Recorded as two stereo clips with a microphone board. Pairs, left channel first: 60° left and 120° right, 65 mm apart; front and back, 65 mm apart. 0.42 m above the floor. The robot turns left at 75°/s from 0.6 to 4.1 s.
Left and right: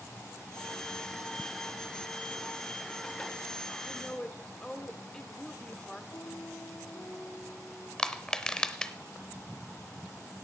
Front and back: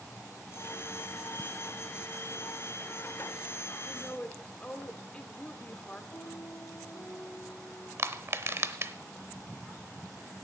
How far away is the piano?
About 5.5 m.